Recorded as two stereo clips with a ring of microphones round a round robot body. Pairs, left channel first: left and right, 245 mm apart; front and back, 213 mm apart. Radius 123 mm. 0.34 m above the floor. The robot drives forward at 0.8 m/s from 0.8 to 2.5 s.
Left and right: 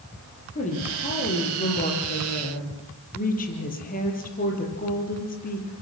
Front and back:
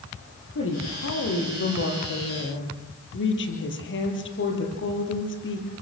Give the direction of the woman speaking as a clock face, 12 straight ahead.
11 o'clock.